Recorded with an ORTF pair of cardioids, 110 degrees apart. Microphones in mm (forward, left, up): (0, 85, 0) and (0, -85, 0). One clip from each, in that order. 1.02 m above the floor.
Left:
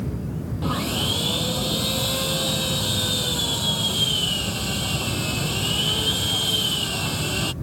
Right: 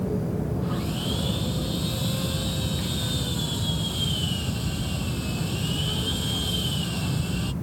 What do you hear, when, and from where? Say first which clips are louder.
0.6 s sawing: left 6 dB; 65° left